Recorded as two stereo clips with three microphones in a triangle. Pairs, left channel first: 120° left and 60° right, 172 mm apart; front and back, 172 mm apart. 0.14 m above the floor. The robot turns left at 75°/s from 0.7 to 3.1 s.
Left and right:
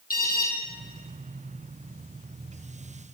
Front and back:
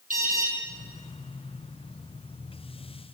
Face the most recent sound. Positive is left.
turn(degrees=-35)